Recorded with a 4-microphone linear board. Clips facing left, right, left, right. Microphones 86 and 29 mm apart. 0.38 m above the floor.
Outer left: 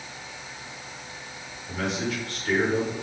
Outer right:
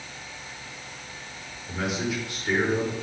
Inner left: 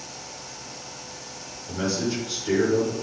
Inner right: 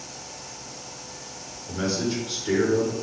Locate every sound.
1.7 s a man speaking: 5° right (ahead or behind), 4 m